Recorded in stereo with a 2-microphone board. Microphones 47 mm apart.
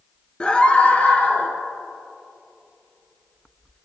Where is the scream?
20° left (ahead or behind), 1.8 m; by 1.5 s 35° left (ahead or behind), 3 m.